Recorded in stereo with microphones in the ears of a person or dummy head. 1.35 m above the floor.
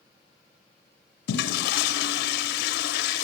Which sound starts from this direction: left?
A toilet flushing, at 1.3 s.